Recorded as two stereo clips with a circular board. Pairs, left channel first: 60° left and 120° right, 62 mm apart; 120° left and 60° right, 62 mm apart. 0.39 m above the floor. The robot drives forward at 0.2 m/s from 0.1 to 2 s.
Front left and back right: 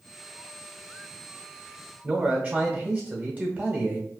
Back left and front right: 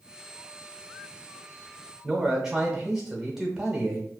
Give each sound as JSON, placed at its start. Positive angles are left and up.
{"t": 2.0, "sound": "a man speaking", "azimuth_deg": -140, "distance_m": 0.9}